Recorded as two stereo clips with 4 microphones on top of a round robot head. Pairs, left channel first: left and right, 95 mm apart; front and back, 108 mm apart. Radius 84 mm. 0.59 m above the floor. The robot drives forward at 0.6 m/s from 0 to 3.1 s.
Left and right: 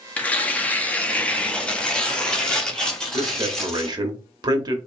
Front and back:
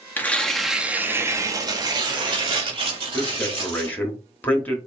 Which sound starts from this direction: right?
A man speaking, at 3.1 s.